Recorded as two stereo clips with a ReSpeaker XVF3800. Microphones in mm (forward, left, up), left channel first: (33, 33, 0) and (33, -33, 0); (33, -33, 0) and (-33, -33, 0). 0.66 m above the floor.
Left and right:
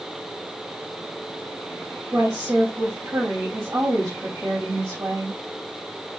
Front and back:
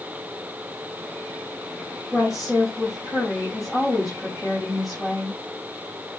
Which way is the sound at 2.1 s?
95° right.